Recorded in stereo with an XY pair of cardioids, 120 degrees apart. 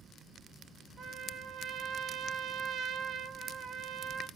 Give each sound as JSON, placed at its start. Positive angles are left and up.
{"t": 1.0, "sound": "a trumpet", "azimuth_deg": -50, "distance_m": 0.5}